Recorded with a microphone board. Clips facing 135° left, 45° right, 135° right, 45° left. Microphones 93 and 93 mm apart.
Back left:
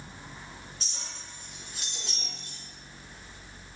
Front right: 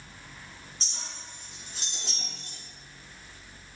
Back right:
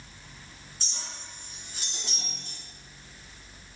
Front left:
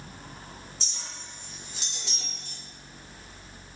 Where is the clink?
100° right, 2.5 m.